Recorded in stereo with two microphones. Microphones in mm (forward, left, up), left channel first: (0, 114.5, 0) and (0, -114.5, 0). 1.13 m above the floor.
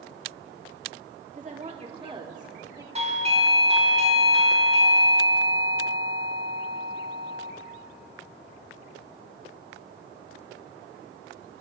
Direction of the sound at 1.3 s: 35° right (ahead or behind).